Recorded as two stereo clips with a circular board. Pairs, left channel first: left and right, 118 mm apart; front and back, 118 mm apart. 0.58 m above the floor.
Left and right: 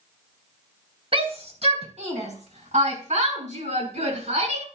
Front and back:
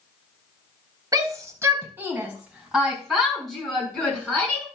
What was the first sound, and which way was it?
A shout, 120° right.